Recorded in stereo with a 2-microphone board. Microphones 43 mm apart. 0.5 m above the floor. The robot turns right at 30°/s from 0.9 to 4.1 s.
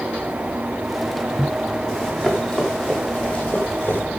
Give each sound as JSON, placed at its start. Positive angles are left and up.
{"t": 1.9, "sound": "running footsteps", "side_deg": 5, "distance_m": 8.5}